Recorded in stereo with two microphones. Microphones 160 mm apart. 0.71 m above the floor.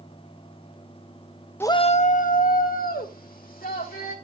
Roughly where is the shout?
Centre.